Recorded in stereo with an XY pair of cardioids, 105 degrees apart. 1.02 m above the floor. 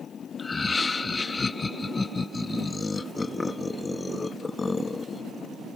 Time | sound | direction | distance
0.4 | laughter | 30° left | ?